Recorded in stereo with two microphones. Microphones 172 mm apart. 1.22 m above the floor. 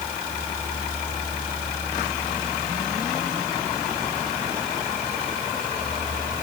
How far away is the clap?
I don't hear a clap.